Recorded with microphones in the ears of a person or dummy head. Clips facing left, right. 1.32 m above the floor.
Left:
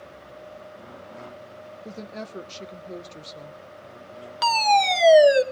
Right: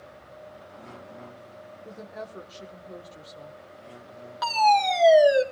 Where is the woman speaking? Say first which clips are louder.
Left 3 dB; 40° left (ahead or behind), 0.9 m.